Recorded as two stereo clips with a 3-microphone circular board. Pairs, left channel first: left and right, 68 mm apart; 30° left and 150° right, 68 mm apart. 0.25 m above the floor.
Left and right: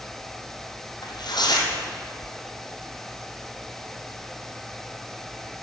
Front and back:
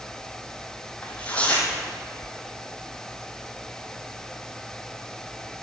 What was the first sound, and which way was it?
Tearing paper, 105° left.